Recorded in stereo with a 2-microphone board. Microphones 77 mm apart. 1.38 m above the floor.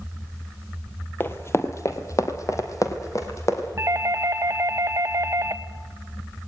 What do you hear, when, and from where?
1.2 s running footsteps: 30° left (ahead or behind), 1.7 m; by 3.7 s 40° left (ahead or behind), 3.5 m
3.8 s a doorbell: 40° right (ahead or behind), 1.1 m